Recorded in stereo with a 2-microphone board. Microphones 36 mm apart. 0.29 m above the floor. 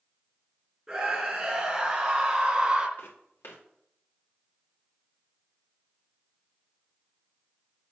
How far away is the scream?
About 3 m.